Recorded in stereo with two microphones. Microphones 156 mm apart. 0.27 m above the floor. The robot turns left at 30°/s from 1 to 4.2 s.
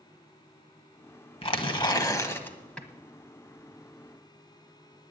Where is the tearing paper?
50° left, 1.2 m; by 2.9 s 5° left, 1.2 m.